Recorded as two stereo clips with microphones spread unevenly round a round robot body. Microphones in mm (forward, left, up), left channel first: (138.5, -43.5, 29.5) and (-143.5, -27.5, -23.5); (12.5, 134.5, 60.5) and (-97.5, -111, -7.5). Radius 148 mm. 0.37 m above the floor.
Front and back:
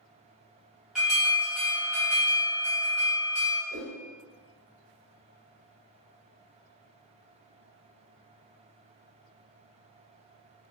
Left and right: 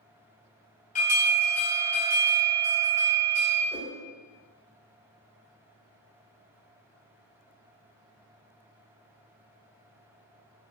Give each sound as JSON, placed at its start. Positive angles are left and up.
{"t": 0.9, "sound": "an alarm", "azimuth_deg": 120, "distance_m": 1.0}
{"t": 3.7, "sound": "a whoosh", "azimuth_deg": 145, "distance_m": 0.5}